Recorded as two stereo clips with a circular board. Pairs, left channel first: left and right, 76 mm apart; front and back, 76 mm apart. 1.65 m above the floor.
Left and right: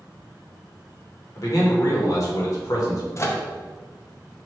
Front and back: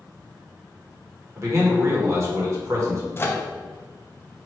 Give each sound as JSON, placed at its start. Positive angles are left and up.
{"t": 1.4, "sound": "a man speaking", "azimuth_deg": 130, "distance_m": 1.5}
{"t": 3.2, "sound": "a microwave", "azimuth_deg": 50, "distance_m": 0.5}